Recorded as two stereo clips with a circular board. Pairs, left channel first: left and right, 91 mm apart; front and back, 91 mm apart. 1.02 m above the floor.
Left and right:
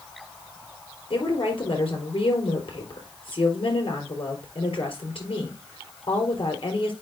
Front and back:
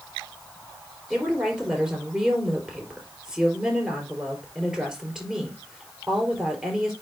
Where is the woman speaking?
100° left, 4.5 m.